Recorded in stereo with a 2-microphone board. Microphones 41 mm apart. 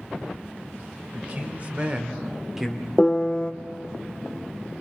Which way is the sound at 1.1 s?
35° right (ahead or behind).